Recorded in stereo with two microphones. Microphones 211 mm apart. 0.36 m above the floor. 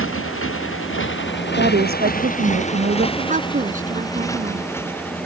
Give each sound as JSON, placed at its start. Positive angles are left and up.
{"t": 0.0, "sound": "a motorcycle", "side_deg": 85}
{"t": 1.6, "sound": "a woman speaking", "side_deg": -50}
{"t": 3.2, "sound": "a woman speaking", "side_deg": -40}